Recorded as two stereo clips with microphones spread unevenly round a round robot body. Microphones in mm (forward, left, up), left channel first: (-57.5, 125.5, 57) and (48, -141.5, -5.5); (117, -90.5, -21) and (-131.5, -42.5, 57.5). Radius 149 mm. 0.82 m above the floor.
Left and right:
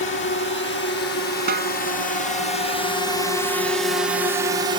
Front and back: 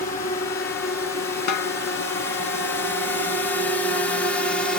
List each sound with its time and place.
0.0 s a drone: 60° left; by 4.8 s 55° right
1.5 s a snare drum: 5° right